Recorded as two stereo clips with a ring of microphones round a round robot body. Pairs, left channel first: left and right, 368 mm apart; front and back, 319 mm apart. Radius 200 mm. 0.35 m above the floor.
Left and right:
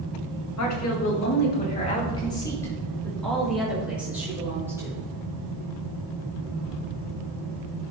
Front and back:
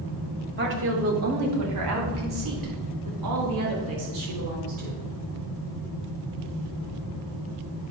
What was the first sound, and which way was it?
A woman speaking, 130° left.